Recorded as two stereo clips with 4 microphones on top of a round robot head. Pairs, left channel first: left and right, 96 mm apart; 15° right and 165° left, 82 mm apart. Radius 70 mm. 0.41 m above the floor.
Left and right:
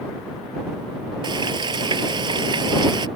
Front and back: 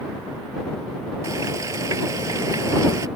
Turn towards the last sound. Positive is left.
turn(degrees=-130)